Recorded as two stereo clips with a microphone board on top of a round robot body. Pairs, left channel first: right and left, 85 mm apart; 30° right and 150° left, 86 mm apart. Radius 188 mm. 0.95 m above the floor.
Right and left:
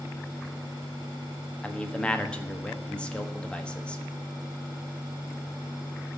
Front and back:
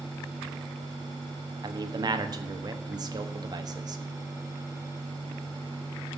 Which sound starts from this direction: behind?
A man speaking, at 1.6 s.